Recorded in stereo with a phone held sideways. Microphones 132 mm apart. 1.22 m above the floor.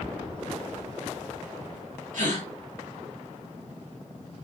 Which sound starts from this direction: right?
A gasp, at 2.1 s.